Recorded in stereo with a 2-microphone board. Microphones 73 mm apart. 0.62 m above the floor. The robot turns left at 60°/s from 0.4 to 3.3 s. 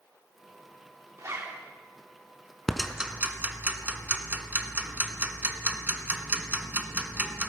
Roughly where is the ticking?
Centre.